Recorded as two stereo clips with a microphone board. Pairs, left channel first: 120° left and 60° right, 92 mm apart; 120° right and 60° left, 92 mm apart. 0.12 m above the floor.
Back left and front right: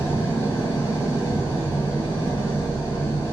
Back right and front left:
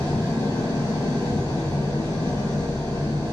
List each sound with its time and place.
0.0 s an engine running: straight behind, 2 m